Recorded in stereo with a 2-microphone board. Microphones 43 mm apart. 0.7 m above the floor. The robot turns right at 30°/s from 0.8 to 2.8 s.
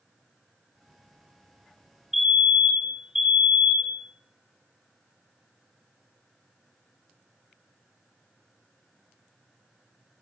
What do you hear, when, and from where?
2.1 s a fire alarm: 5° right (ahead or behind), 1.4 m; by 4.0 s 15° right (ahead or behind), 1.4 m